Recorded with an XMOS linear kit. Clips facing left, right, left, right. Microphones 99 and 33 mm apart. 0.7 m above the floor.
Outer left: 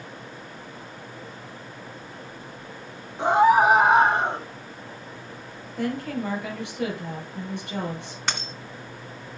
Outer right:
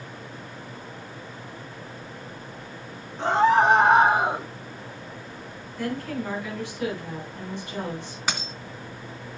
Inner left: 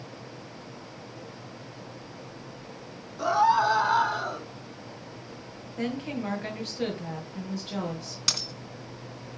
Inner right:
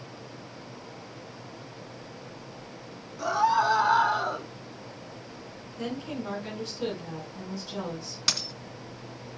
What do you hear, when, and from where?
3.2 s a scream: 15° left (ahead or behind), 2.5 m; by 4.5 s 15° right (ahead or behind), 1.9 m
5.8 s a woman speaking: 60° left (ahead or behind), 9.5 m
8.3 s a dropped coin: 5° right (ahead or behind), 2.5 m